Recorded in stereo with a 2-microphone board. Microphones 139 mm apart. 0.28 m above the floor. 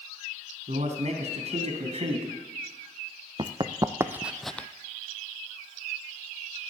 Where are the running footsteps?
35° right (ahead or behind), 1.0 m; by 4.7 s 15° left (ahead or behind), 0.6 m.